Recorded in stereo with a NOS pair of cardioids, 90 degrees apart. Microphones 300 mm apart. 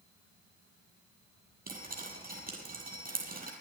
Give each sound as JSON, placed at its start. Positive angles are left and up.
{"t": 1.7, "sound": "dripping", "azimuth_deg": -30, "distance_m": 7.0}